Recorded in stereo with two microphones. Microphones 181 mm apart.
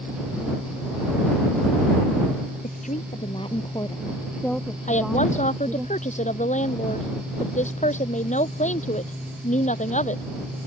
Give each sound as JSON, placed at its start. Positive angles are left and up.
{"t": 2.6, "sound": "a woman speaking", "side_deg": 50}
{"t": 4.9, "sound": "a woman speaking", "side_deg": 40}